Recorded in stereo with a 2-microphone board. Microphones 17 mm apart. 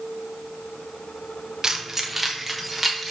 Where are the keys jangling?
35° right (ahead or behind), 0.5 m; by 3.1 s centre (ahead or behind), 1.3 m.